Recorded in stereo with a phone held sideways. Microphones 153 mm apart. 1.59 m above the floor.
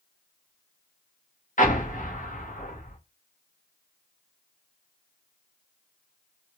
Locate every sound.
1.6 s an explosion: 55° left (ahead or behind), 1.0 m